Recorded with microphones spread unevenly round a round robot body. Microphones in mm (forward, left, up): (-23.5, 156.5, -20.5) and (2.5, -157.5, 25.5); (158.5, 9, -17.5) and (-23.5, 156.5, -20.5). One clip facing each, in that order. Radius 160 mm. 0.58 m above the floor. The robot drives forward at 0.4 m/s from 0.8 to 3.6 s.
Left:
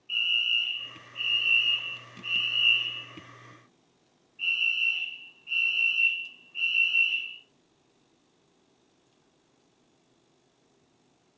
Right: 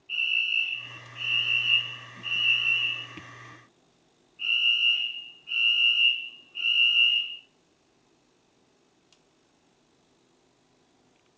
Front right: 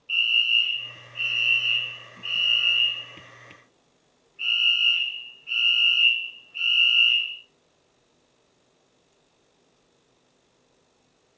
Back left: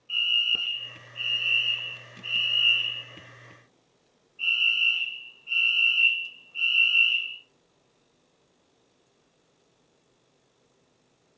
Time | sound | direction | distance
0.1 | a fire alarm | 15° left | 4 m